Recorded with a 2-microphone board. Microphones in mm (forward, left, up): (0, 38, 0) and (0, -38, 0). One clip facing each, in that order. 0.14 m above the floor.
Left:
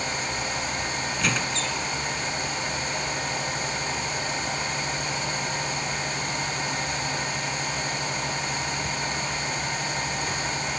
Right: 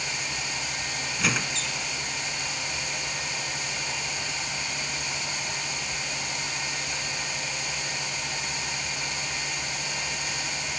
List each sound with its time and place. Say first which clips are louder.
1.2 s a squeak: even; 5° right (ahead or behind)